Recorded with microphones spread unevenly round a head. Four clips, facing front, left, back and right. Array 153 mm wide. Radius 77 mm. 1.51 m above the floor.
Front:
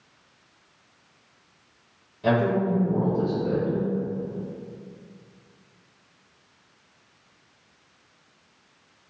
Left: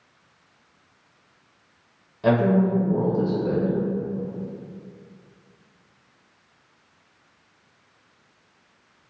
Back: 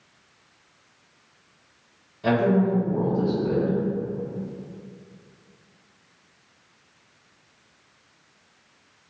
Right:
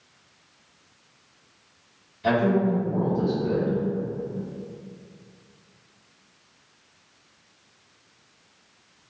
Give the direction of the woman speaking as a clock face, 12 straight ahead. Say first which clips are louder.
Left 2 dB, back 2 dB; 9 o'clock.